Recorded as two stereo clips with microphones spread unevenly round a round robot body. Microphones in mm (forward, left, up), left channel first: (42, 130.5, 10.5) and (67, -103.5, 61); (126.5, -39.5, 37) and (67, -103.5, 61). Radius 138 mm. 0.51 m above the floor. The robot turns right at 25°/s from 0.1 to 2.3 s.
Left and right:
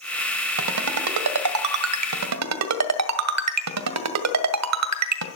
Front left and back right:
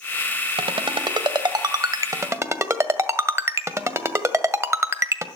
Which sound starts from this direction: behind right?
A ringtone, at 0.6 s.